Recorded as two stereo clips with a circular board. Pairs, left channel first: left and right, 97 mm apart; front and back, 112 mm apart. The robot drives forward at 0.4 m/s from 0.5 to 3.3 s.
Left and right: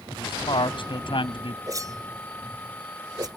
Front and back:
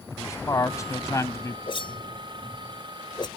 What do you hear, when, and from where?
0.1 s a man speaking: 60° left; by 1.6 s 65° left
1.7 s a whoosh: 40° right; by 3.3 s 45° right